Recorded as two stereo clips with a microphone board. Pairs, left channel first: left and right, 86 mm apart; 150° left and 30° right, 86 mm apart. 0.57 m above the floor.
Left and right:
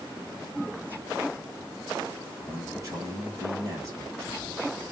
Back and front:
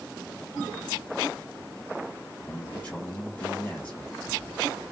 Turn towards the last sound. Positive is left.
turn(degrees=-145)